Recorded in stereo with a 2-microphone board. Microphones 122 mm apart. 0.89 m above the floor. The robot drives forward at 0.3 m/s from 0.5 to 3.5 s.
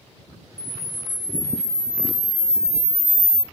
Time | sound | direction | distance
0.6 | a camera shutter | 30° right (ahead or behind) | 1.4 m